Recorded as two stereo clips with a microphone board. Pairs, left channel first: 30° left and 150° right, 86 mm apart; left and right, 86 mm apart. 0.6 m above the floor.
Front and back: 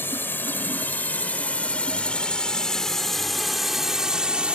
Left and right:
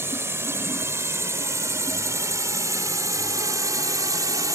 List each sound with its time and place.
0.0 s a drone: 30° right; by 4.6 s 80° right